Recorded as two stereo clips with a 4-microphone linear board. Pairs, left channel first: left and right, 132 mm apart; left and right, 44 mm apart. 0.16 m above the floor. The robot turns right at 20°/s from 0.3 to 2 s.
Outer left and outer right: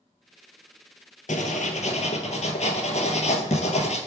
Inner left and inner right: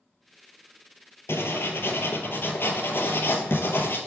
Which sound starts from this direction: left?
Writing, at 1.3 s.